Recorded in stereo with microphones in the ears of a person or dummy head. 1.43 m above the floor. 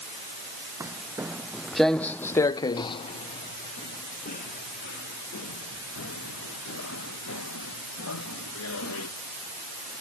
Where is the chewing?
No chewing in this recording.